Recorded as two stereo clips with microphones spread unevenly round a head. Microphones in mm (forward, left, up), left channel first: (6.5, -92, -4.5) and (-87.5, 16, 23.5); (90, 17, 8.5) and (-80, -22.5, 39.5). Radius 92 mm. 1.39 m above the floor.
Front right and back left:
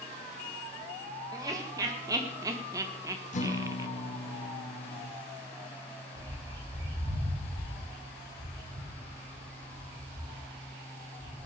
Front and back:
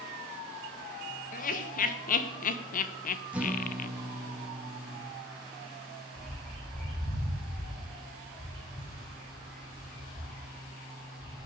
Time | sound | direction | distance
1.3 | laughter | 55° left | 1.9 m
3.3 | a guitar | 85° right | 2.5 m
6.2 | a bird | 95° left | 7.5 m